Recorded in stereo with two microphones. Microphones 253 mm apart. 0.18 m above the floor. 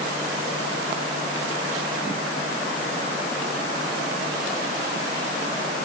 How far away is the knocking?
No knocking in this recording.